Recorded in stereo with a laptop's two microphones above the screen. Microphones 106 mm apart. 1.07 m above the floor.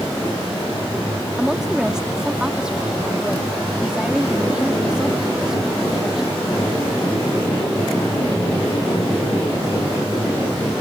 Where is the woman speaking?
5° right (ahead or behind).